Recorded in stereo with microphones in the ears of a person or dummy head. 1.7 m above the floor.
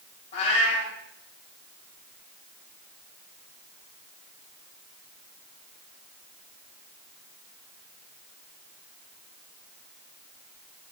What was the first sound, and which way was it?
A cat meowing, 45° left (ahead or behind).